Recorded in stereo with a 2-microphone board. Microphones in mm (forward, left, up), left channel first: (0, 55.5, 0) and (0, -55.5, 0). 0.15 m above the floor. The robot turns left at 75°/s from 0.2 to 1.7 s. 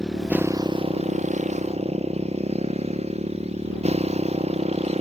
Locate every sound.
0.0 s a motorcycle: 5° right; by 5.0 s 115° right